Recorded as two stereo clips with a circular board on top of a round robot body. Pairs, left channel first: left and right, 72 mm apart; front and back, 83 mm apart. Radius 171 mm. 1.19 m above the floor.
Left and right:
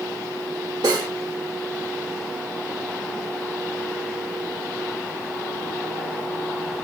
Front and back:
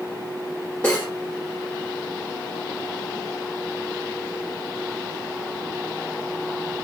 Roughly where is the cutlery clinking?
Right.